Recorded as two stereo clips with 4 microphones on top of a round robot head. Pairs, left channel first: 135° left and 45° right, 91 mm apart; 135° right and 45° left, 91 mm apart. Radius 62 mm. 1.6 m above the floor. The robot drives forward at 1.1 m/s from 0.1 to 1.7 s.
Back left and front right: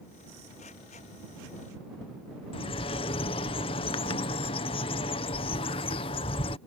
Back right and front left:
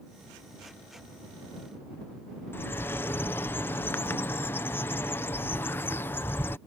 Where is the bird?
160° left.